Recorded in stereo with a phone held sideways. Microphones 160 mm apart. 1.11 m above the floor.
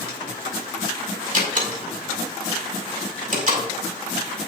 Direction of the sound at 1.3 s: 55° right (ahead or behind).